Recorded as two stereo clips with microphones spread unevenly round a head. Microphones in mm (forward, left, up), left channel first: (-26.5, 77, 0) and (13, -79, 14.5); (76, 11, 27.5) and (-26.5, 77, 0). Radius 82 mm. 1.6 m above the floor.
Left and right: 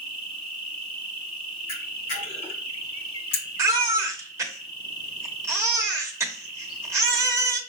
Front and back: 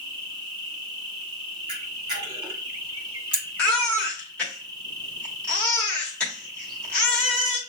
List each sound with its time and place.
0.0 s an insect: 130° left, 1.3 m
1.7 s a camera shutter: 95° left, 2 m
3.6 s a baby crying: 55° right, 0.9 m